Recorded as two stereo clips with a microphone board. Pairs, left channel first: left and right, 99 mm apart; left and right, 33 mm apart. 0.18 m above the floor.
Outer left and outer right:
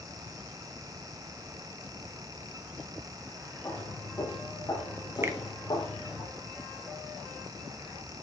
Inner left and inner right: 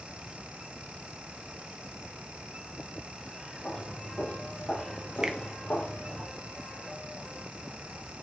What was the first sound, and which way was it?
Footsteps, 30° left (ahead or behind).